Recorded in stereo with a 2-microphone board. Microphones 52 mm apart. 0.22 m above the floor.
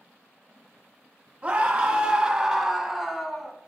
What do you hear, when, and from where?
1.4 s a scream: 35° right (ahead or behind), 1.2 m; by 3.5 s 5° left (ahead or behind), 1.6 m